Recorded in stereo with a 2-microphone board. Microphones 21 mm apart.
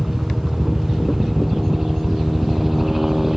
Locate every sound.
0.0 s a helicopter: 5° right (ahead or behind)